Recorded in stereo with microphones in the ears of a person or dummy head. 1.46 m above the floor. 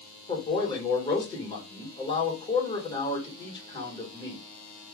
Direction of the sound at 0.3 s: 30° left (ahead or behind).